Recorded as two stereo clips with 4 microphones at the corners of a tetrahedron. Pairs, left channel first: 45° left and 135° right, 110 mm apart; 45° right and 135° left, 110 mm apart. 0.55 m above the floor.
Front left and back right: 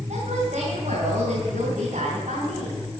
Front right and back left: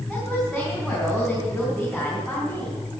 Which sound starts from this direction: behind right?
A woman speaking, at 0.1 s.